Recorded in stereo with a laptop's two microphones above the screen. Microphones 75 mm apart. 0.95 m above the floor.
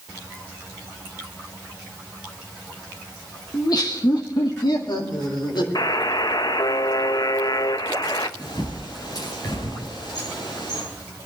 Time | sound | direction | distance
3.5 | laughter | 45° left (ahead or behind) | 1.1 m
5.8 | a buzzer | 55° left (ahead or behind) | 0.6 m
8.4 | a bird | 50° left (ahead or behind) | 8 m